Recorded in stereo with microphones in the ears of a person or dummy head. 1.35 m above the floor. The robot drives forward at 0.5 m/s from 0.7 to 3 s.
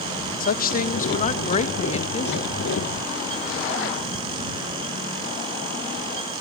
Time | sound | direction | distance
0.4 | a woman speaking | 45° left (ahead or behind) | 1.3 m